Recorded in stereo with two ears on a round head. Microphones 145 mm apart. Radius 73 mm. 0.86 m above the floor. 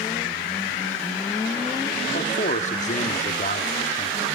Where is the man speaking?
50° left (ahead or behind), 1.5 m.